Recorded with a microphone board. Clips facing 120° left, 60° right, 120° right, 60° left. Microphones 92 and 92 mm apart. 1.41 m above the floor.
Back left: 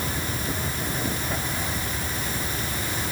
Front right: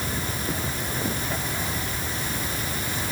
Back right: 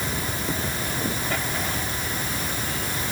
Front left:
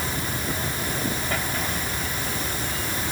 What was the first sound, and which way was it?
Only background noise.